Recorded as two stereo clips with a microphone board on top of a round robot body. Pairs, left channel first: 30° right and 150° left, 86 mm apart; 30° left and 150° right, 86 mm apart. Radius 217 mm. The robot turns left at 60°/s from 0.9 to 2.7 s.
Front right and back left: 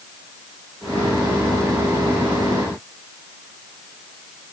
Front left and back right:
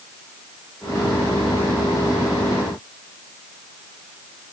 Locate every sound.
Only background noise.